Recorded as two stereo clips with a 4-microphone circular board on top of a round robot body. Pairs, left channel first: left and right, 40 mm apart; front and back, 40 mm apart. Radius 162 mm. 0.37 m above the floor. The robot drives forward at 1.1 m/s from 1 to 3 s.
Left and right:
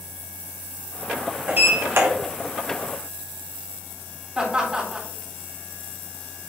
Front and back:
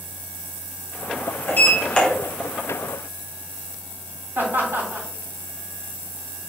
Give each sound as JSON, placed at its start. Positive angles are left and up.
{"t": 1.5, "sound": "a sliding door", "azimuth_deg": -40, "distance_m": 1.2}
{"t": 4.3, "sound": "laughter", "azimuth_deg": -155, "distance_m": 3.5}